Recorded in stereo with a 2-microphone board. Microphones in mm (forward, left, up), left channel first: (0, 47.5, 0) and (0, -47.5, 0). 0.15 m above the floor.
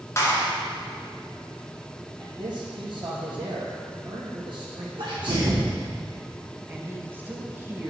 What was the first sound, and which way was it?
A clap, 30° left (ahead or behind).